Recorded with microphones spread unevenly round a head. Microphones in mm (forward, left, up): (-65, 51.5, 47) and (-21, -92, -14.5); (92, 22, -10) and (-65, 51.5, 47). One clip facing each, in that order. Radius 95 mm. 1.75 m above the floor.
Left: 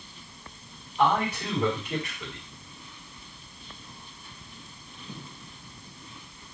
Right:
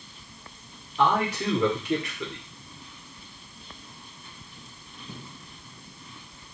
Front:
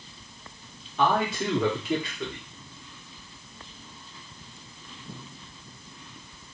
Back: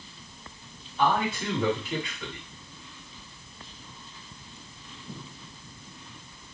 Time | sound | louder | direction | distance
1.0 | a man speaking | right 1 dB, front 1 dB | 45° right | 1.5 m